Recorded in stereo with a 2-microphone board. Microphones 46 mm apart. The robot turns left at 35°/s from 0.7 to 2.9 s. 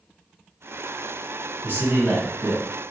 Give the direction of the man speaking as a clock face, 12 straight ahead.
3 o'clock.